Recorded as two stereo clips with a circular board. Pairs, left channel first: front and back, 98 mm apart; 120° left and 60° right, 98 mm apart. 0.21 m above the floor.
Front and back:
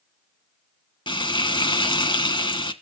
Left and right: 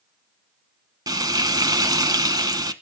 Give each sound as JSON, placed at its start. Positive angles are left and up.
{"t": 1.1, "sound": "frying", "azimuth_deg": -20, "distance_m": 1.0}